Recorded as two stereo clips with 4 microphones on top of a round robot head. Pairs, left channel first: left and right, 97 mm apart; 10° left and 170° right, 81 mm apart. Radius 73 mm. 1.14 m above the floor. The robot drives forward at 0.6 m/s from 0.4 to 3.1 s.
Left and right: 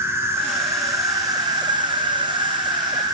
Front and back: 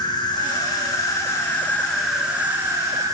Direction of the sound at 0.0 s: 25° right.